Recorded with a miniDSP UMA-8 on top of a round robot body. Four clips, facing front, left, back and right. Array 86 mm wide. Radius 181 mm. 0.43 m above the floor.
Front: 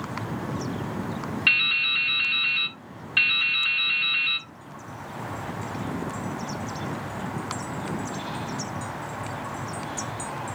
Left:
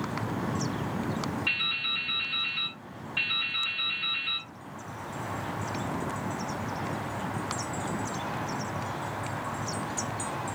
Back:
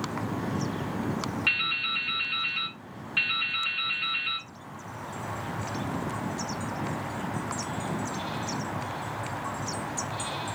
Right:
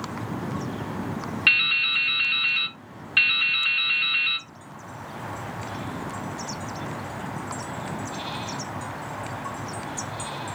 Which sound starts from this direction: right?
Dripping, at 1.5 s.